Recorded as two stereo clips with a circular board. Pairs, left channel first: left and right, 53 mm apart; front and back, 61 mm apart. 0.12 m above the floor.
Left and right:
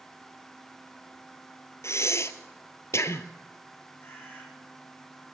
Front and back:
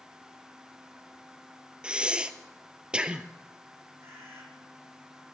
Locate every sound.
1.8 s breathing: 105° left, 1.2 m
4.0 s a bird: 135° left, 6 m